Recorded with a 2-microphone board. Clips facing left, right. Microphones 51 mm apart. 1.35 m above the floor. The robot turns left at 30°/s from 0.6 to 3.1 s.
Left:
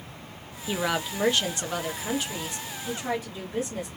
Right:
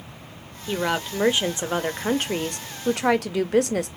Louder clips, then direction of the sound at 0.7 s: Right 3 dB; straight ahead.